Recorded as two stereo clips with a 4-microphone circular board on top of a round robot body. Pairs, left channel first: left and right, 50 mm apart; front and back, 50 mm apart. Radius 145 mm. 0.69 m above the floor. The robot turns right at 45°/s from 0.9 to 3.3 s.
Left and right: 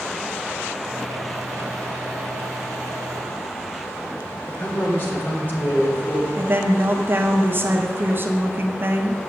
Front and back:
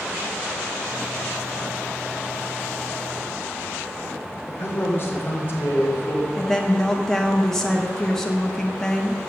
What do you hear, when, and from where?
4.5 s a man speaking: 45° left, 4 m
6.4 s a woman speaking: 75° right, 1.3 m